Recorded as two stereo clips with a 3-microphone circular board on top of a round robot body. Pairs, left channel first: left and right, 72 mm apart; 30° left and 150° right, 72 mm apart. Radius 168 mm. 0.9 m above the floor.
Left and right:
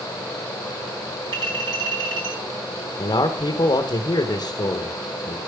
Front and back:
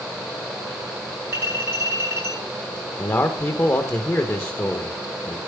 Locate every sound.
1.3 s a clink: 95° right, 7.5 m
3.0 s a man speaking: 85° left, 1.1 m